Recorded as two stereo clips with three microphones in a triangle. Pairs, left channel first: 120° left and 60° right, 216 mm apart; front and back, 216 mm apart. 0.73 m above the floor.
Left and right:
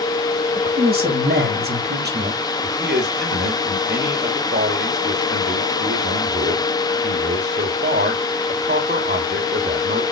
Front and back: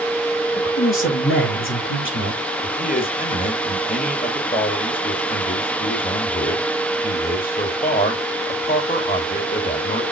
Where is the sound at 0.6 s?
15° right, 4 m; by 2.4 s 20° right, 1.8 m.